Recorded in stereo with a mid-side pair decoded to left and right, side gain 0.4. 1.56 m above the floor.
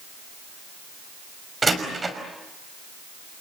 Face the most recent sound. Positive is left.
turn(degrees=-25)